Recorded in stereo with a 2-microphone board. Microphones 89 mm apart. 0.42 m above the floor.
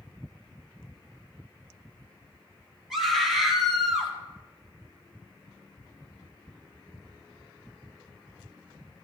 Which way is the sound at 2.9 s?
5° right (ahead or behind).